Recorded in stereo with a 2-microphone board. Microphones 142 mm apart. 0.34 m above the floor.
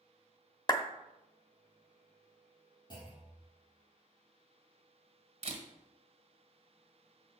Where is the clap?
30° left (ahead or behind), 0.7 m.